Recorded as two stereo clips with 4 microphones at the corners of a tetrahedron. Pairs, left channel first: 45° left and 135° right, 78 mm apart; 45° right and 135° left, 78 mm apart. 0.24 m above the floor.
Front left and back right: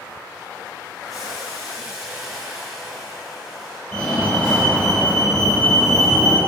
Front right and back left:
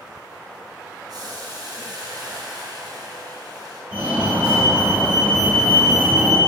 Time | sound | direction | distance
1.1 | boiling | 145° left | 1.4 m
3.9 | a fire alarm | 105° left | 2.0 m